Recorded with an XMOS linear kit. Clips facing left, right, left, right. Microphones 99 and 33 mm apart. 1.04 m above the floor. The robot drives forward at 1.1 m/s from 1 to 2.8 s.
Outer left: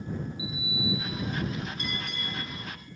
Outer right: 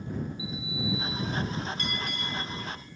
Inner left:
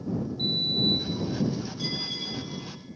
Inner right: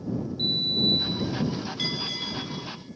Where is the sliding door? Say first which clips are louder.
Even, inner right 2 dB; 30° right (ahead or behind), 3 m; by 1.5 s 40° right (ahead or behind), 2.5 m.